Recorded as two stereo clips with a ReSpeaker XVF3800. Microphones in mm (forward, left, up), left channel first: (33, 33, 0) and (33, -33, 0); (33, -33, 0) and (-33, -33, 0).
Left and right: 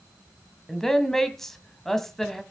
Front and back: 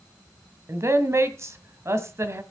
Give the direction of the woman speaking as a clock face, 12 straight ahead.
6 o'clock.